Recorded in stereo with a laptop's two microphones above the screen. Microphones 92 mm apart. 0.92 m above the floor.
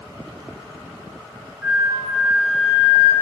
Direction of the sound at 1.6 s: 25° right (ahead or behind).